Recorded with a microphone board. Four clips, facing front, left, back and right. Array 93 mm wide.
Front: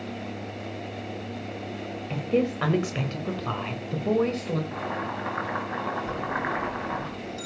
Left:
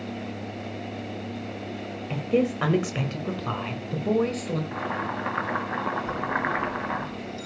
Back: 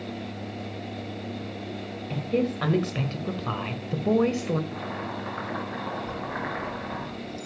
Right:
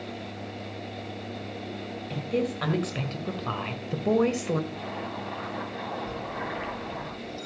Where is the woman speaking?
65° left, 1.4 m; by 4.6 s 120° right, 1.4 m.